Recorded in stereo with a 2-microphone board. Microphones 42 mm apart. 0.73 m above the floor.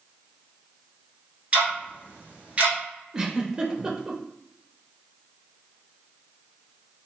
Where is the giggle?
15° right (ahead or behind), 0.5 m.